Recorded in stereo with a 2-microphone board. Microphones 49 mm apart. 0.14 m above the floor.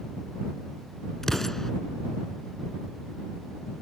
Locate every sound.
1.2 s an explosion: 10° left (ahead or behind)